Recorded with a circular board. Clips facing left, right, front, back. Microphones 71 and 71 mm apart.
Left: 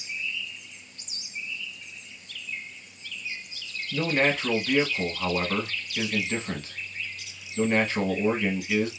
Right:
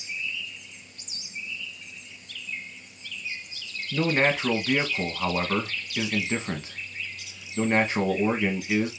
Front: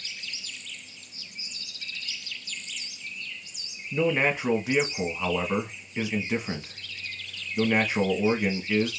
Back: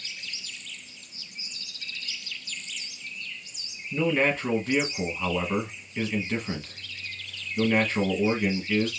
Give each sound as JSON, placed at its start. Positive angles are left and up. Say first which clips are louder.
{"t": 3.9, "sound": "a man speaking", "louder": "right 1 dB, even", "azimuth_deg": -60, "distance_m": 1.0}